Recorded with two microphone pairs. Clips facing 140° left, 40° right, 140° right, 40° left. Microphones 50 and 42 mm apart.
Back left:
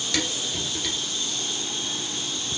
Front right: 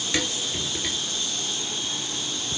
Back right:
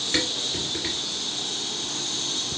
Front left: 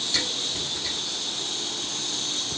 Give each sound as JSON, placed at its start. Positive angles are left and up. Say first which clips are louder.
{"t": 0.1, "sound": "dishes clattering", "louder": "front right 1 dB, back right 4 dB", "azimuth_deg": -110, "distance_m": 2.0}